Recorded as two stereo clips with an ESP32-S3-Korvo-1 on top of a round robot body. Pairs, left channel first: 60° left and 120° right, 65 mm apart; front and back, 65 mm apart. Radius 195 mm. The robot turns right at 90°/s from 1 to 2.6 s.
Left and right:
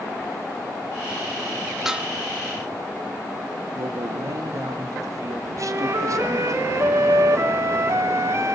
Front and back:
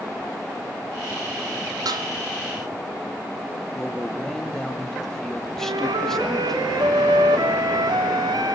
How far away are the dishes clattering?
About 1.2 m.